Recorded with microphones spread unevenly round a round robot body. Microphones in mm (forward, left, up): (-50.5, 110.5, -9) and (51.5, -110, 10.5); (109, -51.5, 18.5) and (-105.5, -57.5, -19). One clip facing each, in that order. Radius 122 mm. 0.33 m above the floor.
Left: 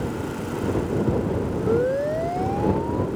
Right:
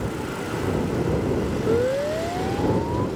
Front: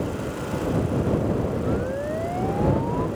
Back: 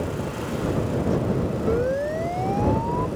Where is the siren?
150° right; by 3.1 s 145° right.